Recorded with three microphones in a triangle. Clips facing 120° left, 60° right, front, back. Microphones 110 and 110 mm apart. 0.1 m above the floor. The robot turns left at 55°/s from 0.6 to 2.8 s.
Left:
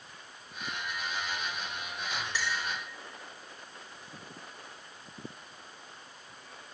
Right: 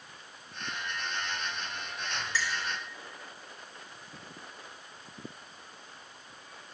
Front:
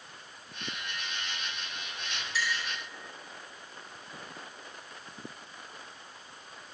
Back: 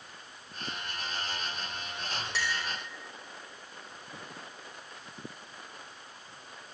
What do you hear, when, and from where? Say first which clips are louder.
2.3 s a clink: right 1 dB, front 1 dB; 165° right, 3.5 m; by 2.6 s straight behind, 3.5 m